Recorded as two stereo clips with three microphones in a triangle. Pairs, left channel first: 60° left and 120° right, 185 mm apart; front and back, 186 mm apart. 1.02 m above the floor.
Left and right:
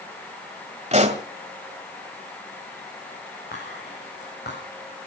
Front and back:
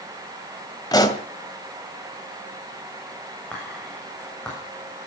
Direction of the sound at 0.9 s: 70° right.